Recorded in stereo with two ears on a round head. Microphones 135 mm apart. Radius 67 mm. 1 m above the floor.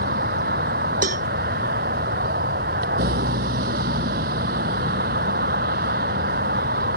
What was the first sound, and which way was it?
A vehicle, 65° right (ahead or behind).